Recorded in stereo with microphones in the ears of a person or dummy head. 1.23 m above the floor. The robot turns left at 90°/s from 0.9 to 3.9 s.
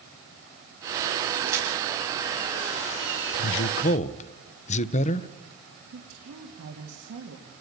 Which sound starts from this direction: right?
A woman speaking, at 5.9 s.